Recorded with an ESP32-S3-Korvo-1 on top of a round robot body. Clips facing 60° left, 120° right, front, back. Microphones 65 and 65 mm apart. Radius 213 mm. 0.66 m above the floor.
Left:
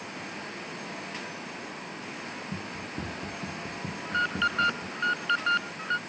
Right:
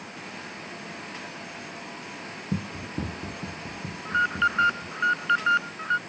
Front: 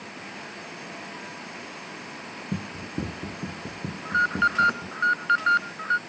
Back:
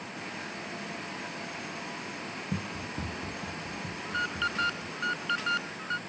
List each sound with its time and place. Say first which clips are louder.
2.5 s running footsteps: right 9 dB, front 5 dB; 65° right; by 5.0 s 10° right
4.0 s an alarm: right 4 dB, front 10 dB; 50° right